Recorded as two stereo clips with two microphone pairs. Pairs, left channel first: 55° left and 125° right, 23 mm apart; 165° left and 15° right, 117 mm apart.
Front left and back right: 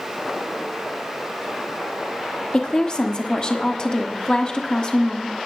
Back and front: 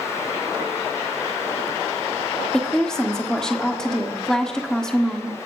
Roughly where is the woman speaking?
Left.